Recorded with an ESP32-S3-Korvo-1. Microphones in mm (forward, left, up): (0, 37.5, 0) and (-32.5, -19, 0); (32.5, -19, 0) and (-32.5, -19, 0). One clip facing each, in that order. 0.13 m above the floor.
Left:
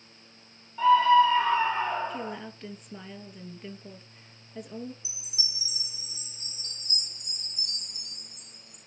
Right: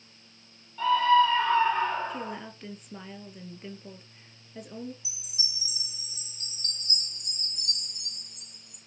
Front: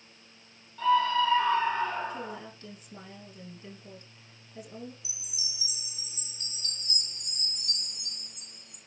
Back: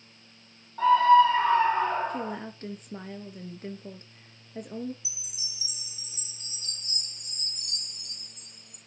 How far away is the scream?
About 5.5 m.